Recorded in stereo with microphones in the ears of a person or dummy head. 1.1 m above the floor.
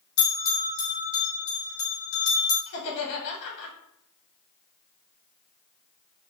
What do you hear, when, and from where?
0.2 s a bell: 80° left, 2 m
2.7 s laughter: 65° left (ahead or behind), 2 m